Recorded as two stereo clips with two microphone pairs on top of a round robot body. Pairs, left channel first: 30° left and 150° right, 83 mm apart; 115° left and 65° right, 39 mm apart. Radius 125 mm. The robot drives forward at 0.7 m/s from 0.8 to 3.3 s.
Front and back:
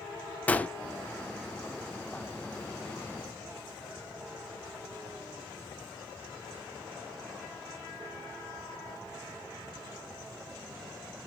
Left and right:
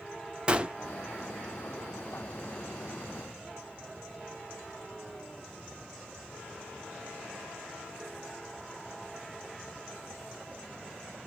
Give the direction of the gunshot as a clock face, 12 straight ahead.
1 o'clock.